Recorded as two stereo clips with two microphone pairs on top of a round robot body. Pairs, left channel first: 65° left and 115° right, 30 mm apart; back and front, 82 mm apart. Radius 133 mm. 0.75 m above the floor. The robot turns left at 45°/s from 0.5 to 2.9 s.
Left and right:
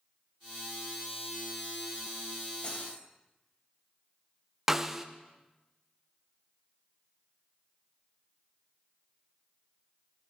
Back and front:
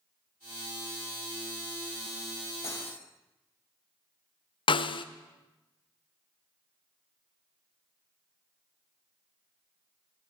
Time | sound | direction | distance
2.6 | cutlery clinking | 125° left | 2.5 m
4.7 | a snare drum | 165° left | 0.6 m